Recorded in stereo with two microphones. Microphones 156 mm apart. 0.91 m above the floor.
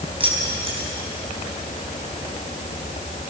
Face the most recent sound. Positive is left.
turn(degrees=-35)  # may be behind; listen again after turning